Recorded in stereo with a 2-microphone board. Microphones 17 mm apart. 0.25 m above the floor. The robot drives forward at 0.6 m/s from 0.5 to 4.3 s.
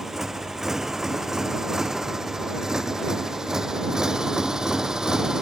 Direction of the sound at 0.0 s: 20° right (ahead or behind).